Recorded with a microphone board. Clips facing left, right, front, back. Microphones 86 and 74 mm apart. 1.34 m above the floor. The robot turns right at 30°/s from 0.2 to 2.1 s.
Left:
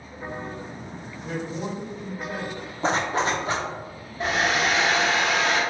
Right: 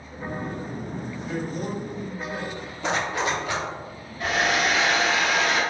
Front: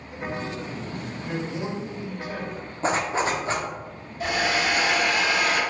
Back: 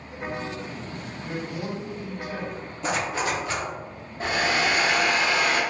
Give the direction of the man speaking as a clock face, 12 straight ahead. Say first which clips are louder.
Left 1 dB, front 1 dB; 10 o'clock.